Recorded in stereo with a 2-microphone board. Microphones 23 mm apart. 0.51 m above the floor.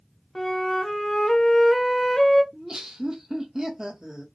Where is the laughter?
30° right (ahead or behind), 1.0 m.